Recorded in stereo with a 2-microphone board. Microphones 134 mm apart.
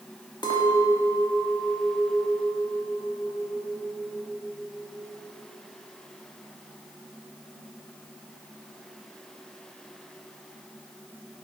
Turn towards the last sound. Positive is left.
turn(degrees=35)  # may be behind; listen again after turning